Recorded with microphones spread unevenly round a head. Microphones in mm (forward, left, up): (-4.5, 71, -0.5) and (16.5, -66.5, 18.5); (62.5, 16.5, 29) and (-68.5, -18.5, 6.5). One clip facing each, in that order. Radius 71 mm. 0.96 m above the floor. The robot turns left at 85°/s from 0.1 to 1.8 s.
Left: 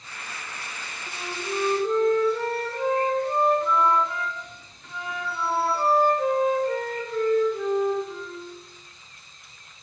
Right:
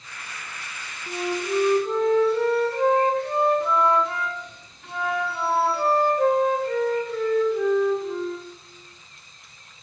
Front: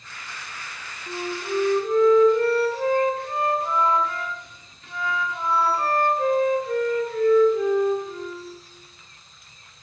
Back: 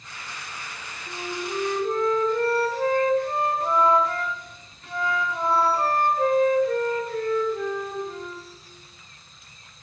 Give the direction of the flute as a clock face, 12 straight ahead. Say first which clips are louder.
Right 7 dB, front 3 dB; 2 o'clock.